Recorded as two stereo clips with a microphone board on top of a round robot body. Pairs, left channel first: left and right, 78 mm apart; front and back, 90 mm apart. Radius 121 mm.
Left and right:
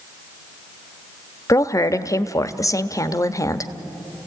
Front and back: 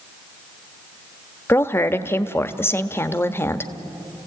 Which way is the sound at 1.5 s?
55° left.